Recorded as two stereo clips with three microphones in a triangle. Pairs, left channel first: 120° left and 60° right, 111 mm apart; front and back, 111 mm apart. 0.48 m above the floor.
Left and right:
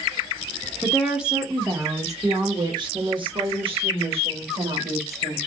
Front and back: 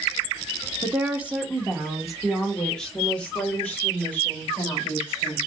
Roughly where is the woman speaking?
Behind right.